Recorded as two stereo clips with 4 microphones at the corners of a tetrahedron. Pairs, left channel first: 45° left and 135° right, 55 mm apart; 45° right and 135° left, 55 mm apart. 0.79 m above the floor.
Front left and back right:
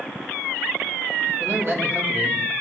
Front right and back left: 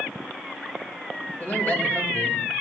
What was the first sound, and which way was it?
A man speaking, 95° right.